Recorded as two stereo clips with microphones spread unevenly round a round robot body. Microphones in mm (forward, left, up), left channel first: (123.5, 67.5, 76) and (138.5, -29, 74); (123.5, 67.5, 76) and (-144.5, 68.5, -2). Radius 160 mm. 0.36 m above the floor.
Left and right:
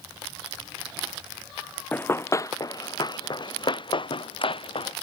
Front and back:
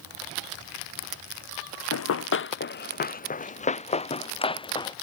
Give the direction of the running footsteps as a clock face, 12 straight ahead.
11 o'clock.